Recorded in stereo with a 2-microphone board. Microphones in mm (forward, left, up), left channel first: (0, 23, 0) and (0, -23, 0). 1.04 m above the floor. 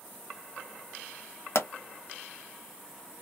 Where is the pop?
70° left (ahead or behind), 0.9 m.